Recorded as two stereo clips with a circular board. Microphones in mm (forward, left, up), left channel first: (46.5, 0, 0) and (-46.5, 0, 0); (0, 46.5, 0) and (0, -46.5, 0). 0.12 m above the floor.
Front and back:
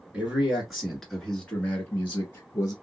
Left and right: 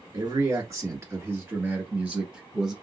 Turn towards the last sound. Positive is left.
turn(degrees=-15)